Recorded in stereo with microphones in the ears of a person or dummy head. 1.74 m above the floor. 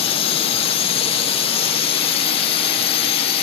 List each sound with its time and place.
0.0 s a drone: 30° left (ahead or behind)